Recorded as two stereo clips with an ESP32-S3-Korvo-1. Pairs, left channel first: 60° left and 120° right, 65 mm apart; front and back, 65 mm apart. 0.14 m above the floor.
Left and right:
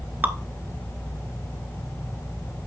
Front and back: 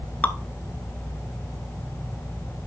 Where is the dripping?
60° right, 0.7 m.